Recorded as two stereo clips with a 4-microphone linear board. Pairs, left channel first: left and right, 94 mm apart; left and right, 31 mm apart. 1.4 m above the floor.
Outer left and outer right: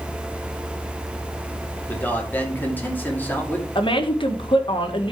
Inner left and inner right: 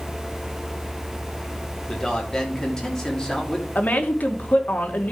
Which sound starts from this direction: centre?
A man speaking, at 1.9 s.